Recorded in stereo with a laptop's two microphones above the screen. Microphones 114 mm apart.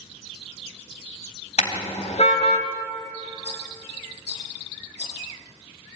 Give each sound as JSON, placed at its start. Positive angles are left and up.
{"t": 1.6, "sound": "a car horn", "side_deg": 80, "distance_m": 3.0}
{"t": 3.4, "sound": "a rattle", "side_deg": 70, "distance_m": 9.0}